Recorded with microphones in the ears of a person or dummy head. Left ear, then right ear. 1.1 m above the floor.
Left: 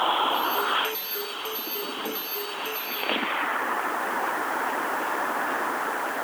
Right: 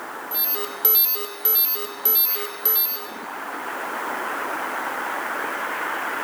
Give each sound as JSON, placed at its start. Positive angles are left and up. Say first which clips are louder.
{"t": 0.3, "sound": "an alarm", "louder": "left 7 dB", "side_deg": -40, "distance_m": 1.2}